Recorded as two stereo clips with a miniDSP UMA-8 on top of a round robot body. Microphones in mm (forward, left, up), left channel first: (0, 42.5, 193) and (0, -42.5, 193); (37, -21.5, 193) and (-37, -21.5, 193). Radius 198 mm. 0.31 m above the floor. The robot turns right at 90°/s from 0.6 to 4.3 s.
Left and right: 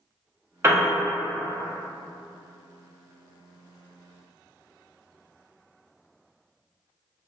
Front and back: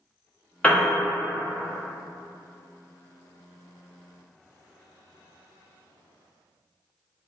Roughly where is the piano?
Ahead right.